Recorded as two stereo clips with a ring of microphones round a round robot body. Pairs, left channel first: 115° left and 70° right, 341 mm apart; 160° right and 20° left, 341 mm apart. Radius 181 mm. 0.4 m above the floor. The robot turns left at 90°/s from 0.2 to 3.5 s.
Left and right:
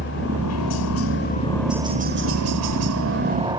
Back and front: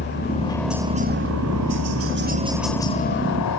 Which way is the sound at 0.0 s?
155° left.